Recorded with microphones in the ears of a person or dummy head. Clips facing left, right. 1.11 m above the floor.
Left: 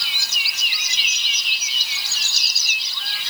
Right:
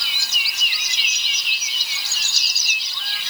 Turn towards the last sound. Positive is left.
No sound to turn to.